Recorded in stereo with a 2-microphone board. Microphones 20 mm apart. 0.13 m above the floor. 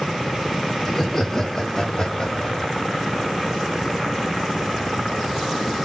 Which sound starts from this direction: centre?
Laughter, at 0.8 s.